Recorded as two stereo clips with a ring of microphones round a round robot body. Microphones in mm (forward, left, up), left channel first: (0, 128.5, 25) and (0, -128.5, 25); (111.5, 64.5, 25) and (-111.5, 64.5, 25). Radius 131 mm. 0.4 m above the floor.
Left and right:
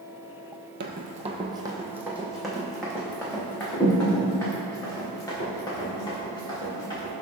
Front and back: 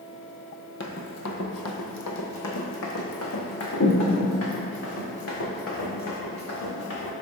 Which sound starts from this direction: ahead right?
Running footsteps, at 0.8 s.